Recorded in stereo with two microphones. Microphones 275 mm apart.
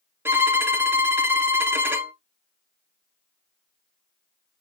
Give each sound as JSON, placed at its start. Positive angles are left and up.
{"t": 0.2, "sound": "a violin", "side_deg": -10, "distance_m": 0.5}